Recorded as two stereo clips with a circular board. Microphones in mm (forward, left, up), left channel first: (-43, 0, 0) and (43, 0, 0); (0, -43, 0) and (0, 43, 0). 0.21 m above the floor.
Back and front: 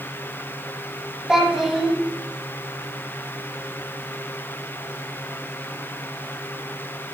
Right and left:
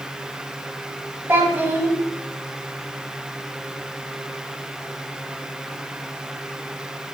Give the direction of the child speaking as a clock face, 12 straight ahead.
9 o'clock.